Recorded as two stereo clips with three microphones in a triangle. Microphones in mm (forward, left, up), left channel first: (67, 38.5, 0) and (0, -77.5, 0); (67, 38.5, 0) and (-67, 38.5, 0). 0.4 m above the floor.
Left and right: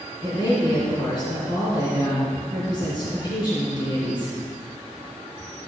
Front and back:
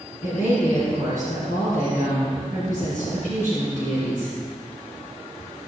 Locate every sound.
0.2 s a woman speaking: 5° left, 3.5 m